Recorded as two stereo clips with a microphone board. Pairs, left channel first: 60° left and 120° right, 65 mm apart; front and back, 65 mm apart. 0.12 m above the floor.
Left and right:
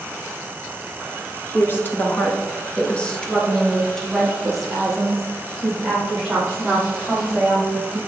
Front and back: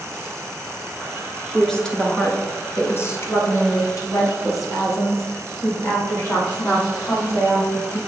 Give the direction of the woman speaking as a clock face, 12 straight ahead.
9 o'clock.